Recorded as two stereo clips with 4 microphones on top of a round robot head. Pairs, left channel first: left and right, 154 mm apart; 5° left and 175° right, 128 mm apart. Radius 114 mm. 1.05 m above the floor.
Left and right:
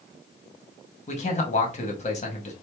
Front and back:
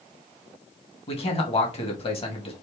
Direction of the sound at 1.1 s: 45° left.